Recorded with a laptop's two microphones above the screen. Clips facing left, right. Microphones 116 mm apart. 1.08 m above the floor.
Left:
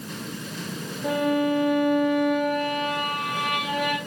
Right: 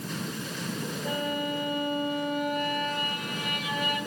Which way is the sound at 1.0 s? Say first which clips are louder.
Left 10 dB; 70° left (ahead or behind).